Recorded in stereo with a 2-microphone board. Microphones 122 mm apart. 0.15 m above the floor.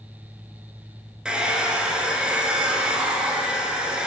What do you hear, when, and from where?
1.2 s a hair dryer: 5° right (ahead or behind), 0.6 m